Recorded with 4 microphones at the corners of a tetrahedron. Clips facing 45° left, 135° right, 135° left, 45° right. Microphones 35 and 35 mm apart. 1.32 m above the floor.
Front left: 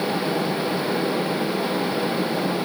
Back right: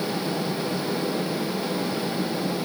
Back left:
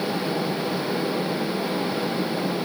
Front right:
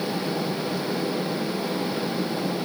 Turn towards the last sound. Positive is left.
No sound to turn to.